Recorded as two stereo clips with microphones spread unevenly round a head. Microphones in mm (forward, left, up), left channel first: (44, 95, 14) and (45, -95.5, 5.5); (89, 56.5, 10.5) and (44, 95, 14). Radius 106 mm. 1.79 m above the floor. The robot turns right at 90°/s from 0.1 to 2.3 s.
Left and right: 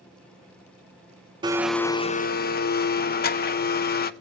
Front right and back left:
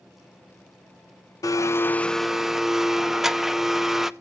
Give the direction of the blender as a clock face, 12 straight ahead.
1 o'clock.